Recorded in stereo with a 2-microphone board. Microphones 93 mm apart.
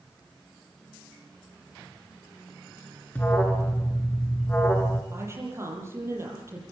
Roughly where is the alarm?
Centre.